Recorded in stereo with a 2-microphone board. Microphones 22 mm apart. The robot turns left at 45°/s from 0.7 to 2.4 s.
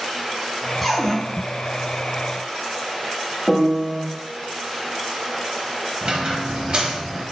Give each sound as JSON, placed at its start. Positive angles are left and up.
{"t": 0.8, "sound": "a cupboard door", "side_deg": 10, "distance_m": 1.8}
{"t": 3.5, "sound": "a piano", "side_deg": 25, "distance_m": 1.8}
{"t": 6.0, "sound": "a squeak", "side_deg": -50, "distance_m": 1.1}